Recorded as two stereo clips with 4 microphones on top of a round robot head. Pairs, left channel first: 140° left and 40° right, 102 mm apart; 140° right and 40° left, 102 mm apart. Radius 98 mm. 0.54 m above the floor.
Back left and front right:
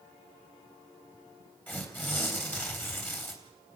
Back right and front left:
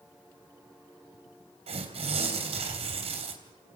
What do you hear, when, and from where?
1.7 s tearing paper: 65° left, 3.5 m